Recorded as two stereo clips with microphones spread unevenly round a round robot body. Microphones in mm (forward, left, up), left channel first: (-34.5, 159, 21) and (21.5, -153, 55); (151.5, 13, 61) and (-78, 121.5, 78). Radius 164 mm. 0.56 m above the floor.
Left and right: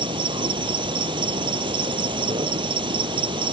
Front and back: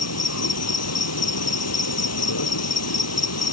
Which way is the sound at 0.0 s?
5° right.